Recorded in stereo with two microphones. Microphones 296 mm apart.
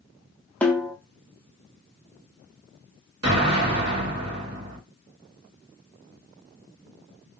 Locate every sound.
0.6 s a snare drum: 5° left (ahead or behind), 0.6 m
3.2 s an explosion: 55° right (ahead or behind), 1.1 m